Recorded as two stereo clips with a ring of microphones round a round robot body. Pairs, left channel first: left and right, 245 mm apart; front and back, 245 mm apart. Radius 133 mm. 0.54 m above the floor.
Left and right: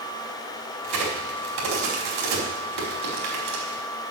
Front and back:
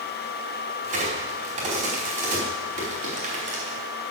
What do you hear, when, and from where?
0.8 s a crack: 115° right, 4.5 m